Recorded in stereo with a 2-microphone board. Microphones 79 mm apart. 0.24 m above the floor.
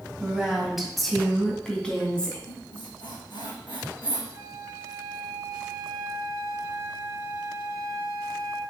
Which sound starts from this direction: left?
A squeak, at 2.5 s.